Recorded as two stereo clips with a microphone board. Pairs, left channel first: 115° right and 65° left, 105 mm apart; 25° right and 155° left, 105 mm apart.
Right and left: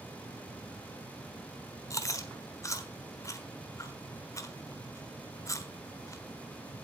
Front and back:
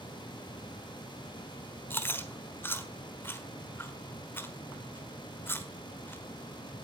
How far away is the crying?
I don't hear crying.